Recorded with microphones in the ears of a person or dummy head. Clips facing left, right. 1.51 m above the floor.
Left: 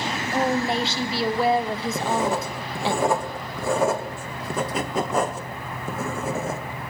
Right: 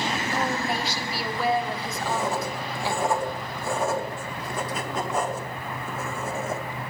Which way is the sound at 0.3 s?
25° left (ahead or behind).